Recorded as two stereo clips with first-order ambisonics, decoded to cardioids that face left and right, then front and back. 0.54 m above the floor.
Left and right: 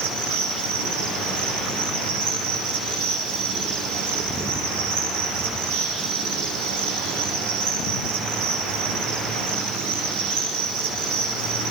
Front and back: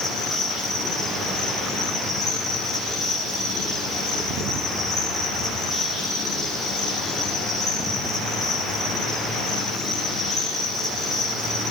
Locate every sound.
0.0 s an insect: 100° right, 8 m